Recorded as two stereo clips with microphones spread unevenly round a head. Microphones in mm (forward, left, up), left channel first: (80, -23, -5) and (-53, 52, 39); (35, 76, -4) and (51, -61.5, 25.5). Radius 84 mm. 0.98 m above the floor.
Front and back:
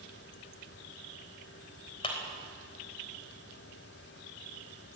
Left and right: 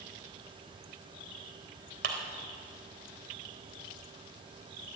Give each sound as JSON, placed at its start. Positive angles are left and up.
{"t": 2.0, "sound": "a clap", "azimuth_deg": -90, "distance_m": 3.5}